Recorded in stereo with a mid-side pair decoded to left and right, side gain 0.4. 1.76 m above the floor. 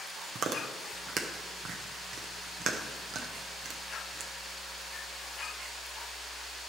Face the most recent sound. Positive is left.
turn(degrees=-60)